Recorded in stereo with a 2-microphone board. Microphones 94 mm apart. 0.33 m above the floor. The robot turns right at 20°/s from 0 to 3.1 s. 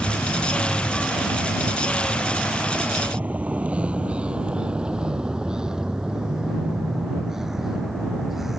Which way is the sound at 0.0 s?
15° left (ahead or behind).